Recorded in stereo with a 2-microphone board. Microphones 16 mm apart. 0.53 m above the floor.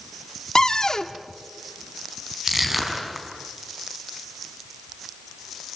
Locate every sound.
0.6 s a cupboard door: 35° left (ahead or behind), 1.0 m
2.5 s crushing: 20° right (ahead or behind), 4.5 m